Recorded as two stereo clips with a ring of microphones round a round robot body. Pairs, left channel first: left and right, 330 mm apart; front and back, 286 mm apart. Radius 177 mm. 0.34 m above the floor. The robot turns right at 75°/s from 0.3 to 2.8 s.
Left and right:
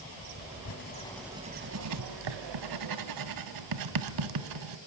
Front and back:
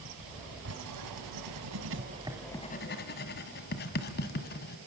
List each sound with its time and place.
0.7 s writing: 135° left, 1.5 m; by 4.8 s 60° right, 1.5 m